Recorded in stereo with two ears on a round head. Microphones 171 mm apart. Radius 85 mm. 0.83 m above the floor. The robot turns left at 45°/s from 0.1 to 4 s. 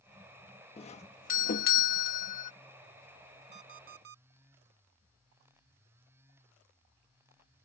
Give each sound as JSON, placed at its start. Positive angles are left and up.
{"t": 0.8, "sound": "a doorbell", "azimuth_deg": 140}
{"t": 3.5, "sound": "an alarm clock", "side_deg": -35}